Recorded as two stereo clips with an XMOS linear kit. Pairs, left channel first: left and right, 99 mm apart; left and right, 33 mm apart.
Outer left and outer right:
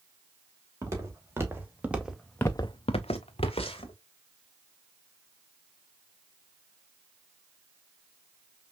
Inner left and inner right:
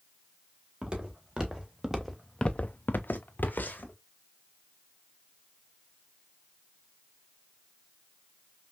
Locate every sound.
0.8 s footsteps: 30° right (ahead or behind), 2 m; by 4.0 s 65° left (ahead or behind), 1.5 m